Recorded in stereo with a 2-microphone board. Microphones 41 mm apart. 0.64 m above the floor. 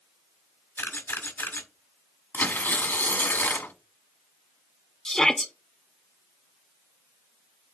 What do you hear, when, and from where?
0.8 s a camera shutter: 65° left (ahead or behind), 1.9 m
2.3 s tearing paper: 50° left (ahead or behind), 1.1 m
5.0 s a shout: 15° left (ahead or behind), 0.7 m